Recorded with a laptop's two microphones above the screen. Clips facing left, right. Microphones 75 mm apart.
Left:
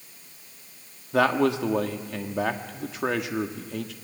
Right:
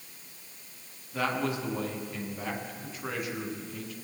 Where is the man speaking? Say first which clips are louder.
Left 9 dB; 85° left, 1.6 m.